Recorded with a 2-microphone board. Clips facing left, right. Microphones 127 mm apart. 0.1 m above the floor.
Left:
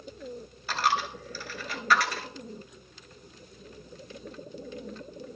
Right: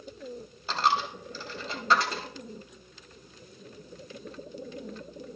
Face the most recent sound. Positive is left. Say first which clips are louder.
# right 1 dB
turn(degrees=-25)  # may be behind; listen again after turning